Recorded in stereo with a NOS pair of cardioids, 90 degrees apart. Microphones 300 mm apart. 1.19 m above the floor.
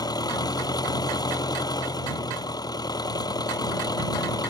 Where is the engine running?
10° left.